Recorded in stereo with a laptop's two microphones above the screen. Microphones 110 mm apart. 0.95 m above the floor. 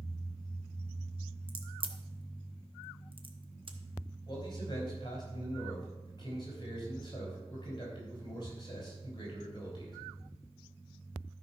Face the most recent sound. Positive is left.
turn(degrees=40)  # may be behind; listen again after turning